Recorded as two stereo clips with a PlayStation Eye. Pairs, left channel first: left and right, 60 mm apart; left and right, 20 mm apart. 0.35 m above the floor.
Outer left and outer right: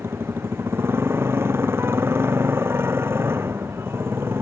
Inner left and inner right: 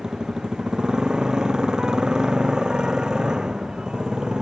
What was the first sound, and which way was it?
A motorcycle, 40° right (ahead or behind).